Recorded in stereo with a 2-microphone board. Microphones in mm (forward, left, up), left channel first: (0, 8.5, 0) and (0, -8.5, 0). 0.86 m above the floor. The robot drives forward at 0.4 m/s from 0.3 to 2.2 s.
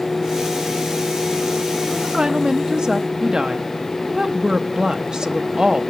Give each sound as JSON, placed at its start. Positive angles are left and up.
{"t": 1.9, "sound": "a woman speaking", "side_deg": -45, "distance_m": 0.6}